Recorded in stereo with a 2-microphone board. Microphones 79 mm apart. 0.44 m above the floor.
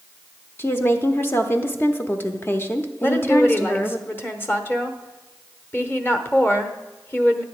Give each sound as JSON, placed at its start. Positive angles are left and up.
{"t": 0.6, "sound": "a woman speaking", "side_deg": 30, "distance_m": 0.8}
{"t": 3.0, "sound": "a woman speaking", "side_deg": 30, "distance_m": 0.9}